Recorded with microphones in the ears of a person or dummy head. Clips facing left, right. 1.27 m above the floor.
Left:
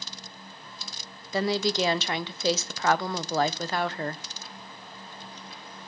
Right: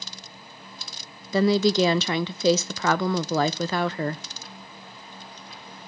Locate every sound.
1.3 s a woman speaking: 75° right (ahead or behind), 0.7 m